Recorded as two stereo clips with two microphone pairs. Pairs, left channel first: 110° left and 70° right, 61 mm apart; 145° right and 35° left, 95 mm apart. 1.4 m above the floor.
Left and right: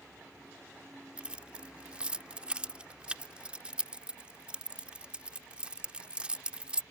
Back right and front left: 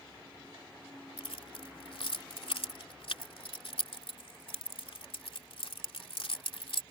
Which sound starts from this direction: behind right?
Keys jangling, at 1.2 s.